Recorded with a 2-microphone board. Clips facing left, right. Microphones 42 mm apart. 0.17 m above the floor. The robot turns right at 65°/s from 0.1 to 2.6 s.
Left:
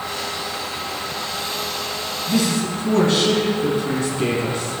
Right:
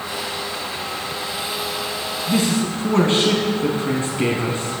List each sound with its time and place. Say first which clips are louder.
2.3 s a man speaking: right 1 dB; 25° right (ahead or behind), 1.6 m; by 4.8 s 30° right (ahead or behind), 1.6 m